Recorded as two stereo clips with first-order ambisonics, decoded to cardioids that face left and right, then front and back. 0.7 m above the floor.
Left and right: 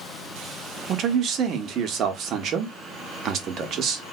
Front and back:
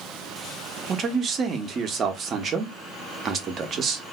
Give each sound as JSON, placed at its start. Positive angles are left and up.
{"t": 0.9, "sound": "a man speaking", "azimuth_deg": -130, "distance_m": 0.7}